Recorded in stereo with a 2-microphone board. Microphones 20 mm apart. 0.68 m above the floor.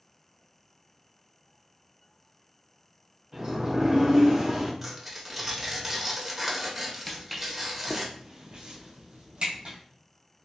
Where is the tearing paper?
15° right (ahead or behind), 0.8 m.